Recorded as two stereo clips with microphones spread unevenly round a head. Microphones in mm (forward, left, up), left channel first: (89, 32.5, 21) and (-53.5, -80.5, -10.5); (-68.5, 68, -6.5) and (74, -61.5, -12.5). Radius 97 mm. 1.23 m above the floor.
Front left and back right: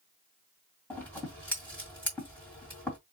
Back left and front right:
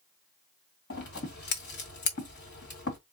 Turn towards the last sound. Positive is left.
turn(degrees=115)